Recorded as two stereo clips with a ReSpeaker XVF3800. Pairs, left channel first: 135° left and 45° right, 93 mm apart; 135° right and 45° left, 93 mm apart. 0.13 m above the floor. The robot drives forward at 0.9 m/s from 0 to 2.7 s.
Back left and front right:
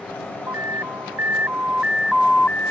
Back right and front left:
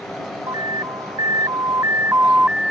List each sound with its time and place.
0.5 s an alarm: 10° left; by 2.7 s 125° left